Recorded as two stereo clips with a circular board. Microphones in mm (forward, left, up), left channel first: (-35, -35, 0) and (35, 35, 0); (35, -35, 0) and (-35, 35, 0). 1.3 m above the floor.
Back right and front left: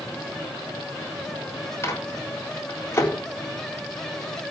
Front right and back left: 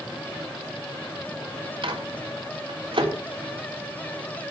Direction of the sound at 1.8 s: 160° left.